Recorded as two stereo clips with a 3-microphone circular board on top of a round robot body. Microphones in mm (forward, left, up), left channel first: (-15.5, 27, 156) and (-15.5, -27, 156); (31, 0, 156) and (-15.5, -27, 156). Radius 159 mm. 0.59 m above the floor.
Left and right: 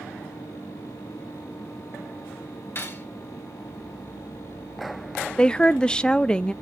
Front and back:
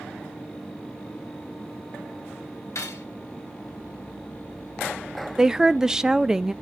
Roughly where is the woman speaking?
Behind left.